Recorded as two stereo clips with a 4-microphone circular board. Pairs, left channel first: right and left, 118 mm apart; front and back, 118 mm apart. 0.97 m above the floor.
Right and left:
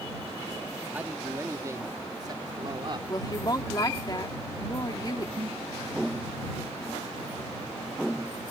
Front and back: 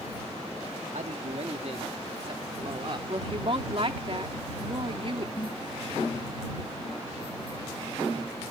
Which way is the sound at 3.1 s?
145° right.